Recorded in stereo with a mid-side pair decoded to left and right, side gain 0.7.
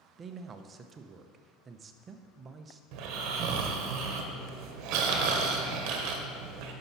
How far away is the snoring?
About 1.2 m.